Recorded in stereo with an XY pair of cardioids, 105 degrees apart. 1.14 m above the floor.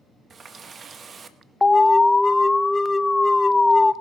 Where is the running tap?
45° right, 0.9 m.